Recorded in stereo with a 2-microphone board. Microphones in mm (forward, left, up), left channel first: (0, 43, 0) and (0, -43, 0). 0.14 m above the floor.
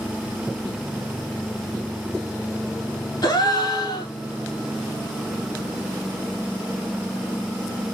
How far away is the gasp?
About 1.4 m.